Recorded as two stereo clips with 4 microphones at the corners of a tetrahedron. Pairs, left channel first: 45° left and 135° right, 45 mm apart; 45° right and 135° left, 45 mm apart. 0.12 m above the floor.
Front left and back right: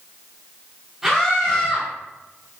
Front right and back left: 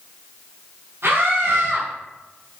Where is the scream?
150° left, 5 m.